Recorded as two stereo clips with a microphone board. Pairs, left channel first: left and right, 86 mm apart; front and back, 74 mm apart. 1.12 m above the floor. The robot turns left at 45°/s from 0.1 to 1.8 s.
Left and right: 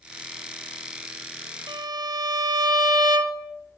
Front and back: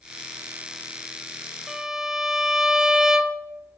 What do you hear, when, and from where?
1.7 s a violin: 95° right, 0.7 m; by 3.5 s 100° right, 0.7 m